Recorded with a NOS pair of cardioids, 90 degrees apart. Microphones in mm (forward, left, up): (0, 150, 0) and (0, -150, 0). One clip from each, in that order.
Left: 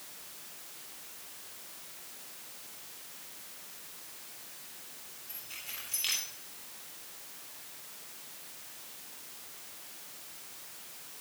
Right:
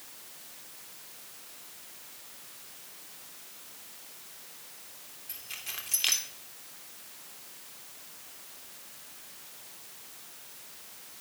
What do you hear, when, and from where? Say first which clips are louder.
5.3 s keys jangling: right 4 dB; 50° right, 2.5 m